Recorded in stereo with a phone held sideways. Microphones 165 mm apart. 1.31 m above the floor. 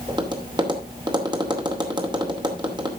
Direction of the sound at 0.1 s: 25° right (ahead or behind).